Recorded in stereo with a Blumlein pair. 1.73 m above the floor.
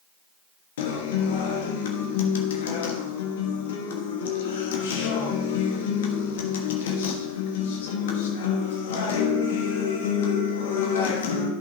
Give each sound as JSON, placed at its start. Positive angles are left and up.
{"t": 0.8, "sound": "a guitar", "azimuth_deg": 55, "distance_m": 1.3}